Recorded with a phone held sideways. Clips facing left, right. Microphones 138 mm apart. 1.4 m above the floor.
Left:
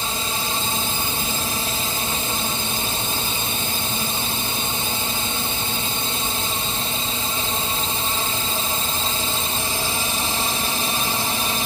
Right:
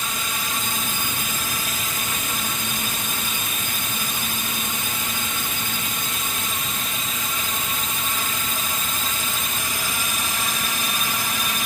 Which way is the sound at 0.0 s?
30° left (ahead or behind).